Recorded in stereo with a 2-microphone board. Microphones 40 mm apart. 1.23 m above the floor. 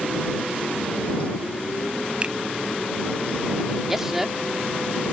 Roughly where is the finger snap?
Right.